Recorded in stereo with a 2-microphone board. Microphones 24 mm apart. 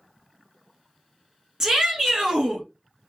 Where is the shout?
25° right (ahead or behind), 1.2 m.